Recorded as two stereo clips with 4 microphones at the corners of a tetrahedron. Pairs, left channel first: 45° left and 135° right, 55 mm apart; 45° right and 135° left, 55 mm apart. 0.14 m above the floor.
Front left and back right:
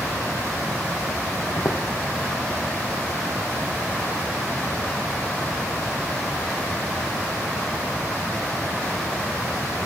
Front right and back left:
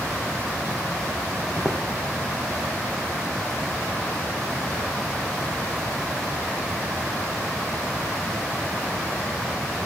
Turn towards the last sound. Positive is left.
turn(degrees=25)